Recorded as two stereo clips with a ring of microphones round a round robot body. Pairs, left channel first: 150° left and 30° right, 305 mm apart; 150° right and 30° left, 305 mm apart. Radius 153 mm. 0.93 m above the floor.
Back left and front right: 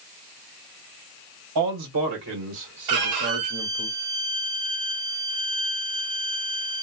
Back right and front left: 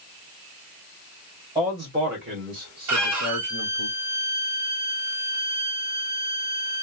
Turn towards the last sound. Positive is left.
turn(degrees=-5)